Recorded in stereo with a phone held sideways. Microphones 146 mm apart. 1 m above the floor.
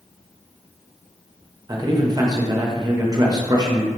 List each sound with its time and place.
1.7 s a man speaking: 30° right (ahead or behind), 0.6 m